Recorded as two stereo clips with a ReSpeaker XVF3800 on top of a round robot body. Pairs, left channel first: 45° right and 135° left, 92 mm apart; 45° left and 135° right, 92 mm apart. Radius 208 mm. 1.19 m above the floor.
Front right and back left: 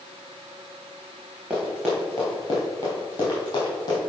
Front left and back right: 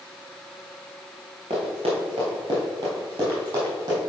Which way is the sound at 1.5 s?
145° right.